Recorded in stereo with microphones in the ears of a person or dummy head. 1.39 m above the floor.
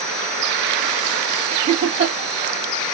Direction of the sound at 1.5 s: 40° right (ahead or behind).